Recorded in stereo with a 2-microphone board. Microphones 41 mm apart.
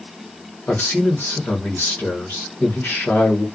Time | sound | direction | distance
0.7 | a man speaking | 55° left (ahead or behind) | 1.6 m